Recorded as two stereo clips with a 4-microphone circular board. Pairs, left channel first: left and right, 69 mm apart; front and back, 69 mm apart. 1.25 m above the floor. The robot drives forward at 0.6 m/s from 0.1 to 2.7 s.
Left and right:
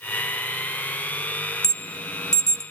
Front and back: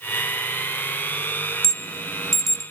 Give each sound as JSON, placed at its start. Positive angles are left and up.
{"t": 1.6, "sound": "an alarm", "azimuth_deg": 85, "distance_m": 2.5}